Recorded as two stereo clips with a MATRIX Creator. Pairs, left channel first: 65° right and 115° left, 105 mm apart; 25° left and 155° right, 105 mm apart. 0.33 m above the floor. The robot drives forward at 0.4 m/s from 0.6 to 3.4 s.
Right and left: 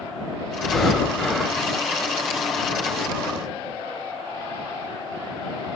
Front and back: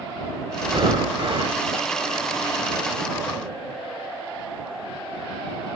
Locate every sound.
0.6 s breathing: 150° right, 1.0 m; by 1.6 s 160° right, 1.3 m